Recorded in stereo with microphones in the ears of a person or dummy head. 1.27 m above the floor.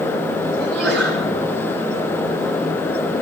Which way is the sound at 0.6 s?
10° left (ahead or behind).